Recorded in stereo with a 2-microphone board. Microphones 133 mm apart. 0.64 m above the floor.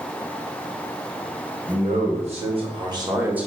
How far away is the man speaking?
About 3 m.